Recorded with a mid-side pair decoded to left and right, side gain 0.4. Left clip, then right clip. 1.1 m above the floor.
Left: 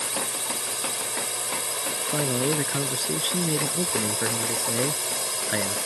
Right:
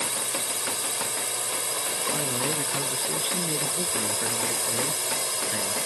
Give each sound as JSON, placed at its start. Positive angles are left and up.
{"t": 0.0, "sound": "a drone", "azimuth_deg": -5}
{"t": 2.1, "sound": "a man speaking", "azimuth_deg": 55}